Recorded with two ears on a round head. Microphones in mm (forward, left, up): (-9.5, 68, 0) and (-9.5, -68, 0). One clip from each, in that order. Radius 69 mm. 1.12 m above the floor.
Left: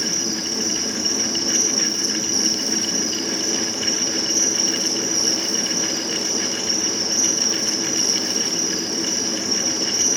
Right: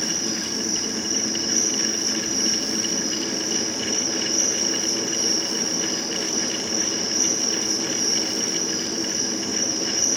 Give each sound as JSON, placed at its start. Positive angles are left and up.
{"t": 0.0, "sound": "an insect", "side_deg": 90, "distance_m": 5.5}